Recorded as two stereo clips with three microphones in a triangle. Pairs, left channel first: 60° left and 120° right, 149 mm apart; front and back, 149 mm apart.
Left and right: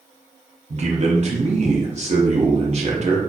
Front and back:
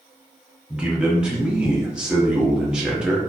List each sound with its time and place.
0.7 s a man speaking: 100° right, 1.1 m